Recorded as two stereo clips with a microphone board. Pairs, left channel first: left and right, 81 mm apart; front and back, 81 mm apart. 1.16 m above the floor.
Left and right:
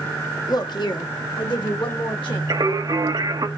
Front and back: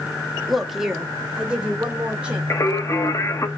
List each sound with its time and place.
0.5 s a woman speaking: 90° left, 0.9 m; by 2.4 s 105° left, 2.5 m
2.5 s singing: 55° right, 0.8 m